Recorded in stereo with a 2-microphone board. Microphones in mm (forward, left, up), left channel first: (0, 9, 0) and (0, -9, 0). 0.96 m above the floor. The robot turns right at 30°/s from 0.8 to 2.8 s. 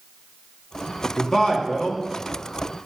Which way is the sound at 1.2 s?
35° left (ahead or behind).